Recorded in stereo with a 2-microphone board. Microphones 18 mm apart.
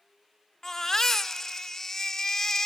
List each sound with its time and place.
0.6 s a baby crying: 30° left (ahead or behind), 0.7 m